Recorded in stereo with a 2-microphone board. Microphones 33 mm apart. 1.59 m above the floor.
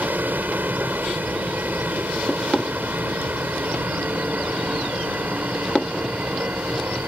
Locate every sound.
0.0 s a vehicle: 80° right